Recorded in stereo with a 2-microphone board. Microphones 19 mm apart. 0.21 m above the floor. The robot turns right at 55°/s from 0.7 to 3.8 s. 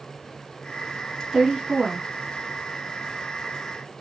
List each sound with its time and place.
1.3 s a woman speaking: 130° right, 2 m; by 2.1 s 90° right, 2 m